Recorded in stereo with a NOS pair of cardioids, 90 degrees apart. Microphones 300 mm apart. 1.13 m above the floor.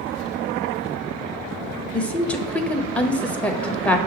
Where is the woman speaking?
5° left, 0.6 m.